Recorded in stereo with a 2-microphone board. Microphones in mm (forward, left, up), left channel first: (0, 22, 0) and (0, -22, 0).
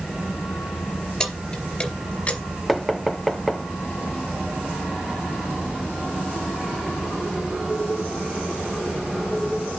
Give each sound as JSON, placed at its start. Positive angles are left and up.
{"t": 1.2, "sound": "keys jangling", "side_deg": 15, "distance_m": 3.0}
{"t": 2.7, "sound": "knocking", "side_deg": 0, "distance_m": 0.9}